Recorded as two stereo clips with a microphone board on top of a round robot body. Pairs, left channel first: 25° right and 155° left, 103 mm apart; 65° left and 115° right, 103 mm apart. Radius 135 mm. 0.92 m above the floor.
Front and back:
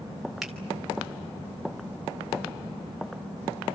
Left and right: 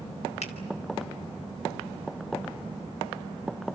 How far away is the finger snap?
About 3 m.